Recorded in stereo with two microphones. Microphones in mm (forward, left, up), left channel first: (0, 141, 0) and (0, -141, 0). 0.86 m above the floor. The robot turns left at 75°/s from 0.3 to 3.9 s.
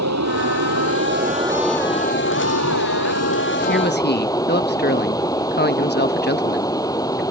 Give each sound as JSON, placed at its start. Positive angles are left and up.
{"t": 0.0, "sound": "running water", "azimuth_deg": -75}
{"t": 3.7, "sound": "a man speaking", "side_deg": 40}